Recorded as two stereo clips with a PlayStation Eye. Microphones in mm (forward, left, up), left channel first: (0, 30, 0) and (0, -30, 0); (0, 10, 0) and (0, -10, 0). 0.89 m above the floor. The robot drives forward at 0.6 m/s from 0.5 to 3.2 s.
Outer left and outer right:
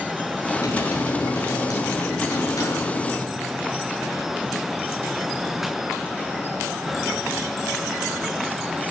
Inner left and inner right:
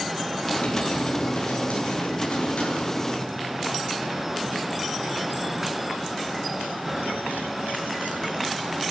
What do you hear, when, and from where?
0.5 s typing on a keyboard: 85° left, 8 m; by 3.3 s 80° left, 8 m